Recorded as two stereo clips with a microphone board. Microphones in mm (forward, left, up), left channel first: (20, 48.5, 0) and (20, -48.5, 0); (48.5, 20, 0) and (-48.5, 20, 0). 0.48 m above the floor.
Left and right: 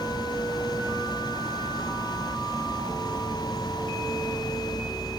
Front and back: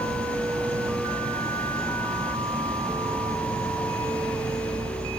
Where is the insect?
175° left, 3 m.